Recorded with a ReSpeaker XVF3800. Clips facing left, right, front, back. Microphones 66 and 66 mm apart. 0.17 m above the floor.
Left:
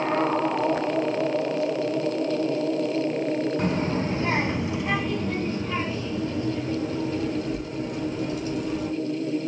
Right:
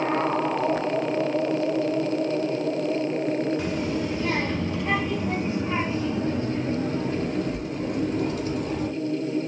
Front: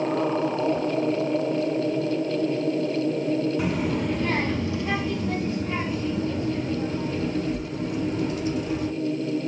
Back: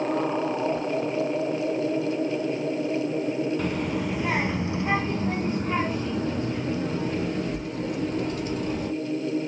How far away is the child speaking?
About 0.9 m.